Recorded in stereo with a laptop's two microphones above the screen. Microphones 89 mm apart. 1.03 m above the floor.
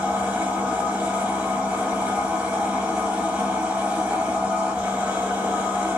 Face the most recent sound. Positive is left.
turn(degrees=-15)  # may be behind; listen again after turning